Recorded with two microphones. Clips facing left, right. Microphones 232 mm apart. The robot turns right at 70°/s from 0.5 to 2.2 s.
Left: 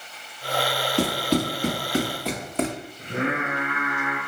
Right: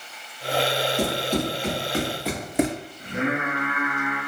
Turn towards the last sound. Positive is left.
turn(degrees=30)  # may be behind; listen again after turning